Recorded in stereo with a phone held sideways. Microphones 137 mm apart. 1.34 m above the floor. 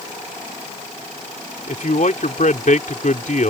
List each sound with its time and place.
1.7 s a man speaking: 65° left (ahead or behind)